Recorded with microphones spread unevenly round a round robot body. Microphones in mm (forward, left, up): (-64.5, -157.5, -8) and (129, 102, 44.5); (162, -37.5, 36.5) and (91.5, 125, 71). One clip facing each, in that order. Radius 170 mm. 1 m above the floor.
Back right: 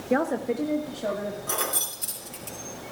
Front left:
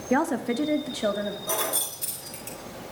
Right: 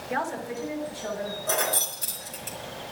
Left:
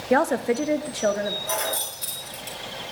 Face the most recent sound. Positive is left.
turn(degrees=-30)